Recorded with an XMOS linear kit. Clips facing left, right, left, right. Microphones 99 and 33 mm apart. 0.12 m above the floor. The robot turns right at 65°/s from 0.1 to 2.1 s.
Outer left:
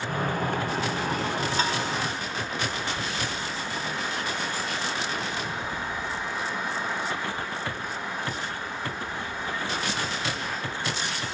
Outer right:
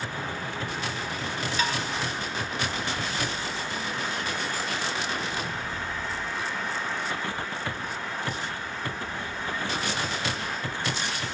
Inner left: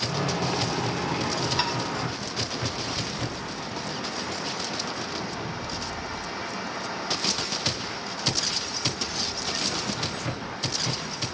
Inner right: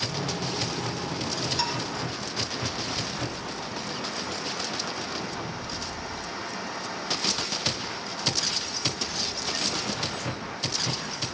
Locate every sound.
1.6 s dishes clattering: 35° left (ahead or behind), 0.8 m